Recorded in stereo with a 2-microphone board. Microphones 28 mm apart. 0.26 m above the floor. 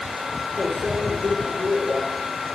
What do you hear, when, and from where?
0.6 s a microwave: 70° right (ahead or behind), 4.5 m